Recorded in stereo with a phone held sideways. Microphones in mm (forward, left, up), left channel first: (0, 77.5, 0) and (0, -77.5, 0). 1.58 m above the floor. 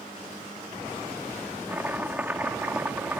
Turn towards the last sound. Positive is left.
turn(degrees=-10)  # may be behind; listen again after turning